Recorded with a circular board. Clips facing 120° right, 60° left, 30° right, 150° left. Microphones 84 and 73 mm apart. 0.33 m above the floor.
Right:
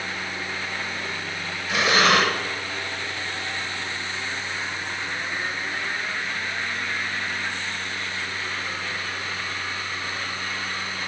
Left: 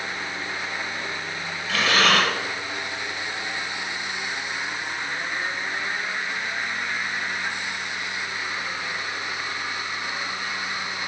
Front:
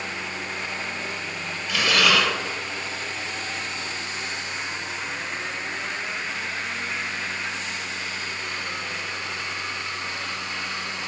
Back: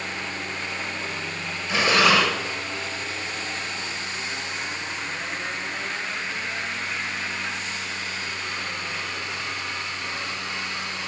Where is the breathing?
175° right, 1.7 m.